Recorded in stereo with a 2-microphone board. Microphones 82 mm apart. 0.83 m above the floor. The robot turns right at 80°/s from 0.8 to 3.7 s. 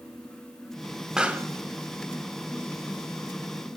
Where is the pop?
5° right (ahead or behind), 1.7 m; by 1.5 s 30° right (ahead or behind), 1.7 m.